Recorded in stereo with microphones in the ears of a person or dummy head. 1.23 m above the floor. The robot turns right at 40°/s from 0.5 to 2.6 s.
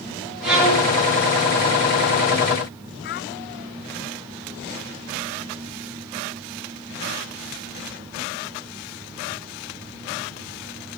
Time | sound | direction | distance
0.4 | a violin | 5° right (ahead or behind) | 7 m
3.0 | a child speaking | 45° left (ahead or behind) | 0.7 m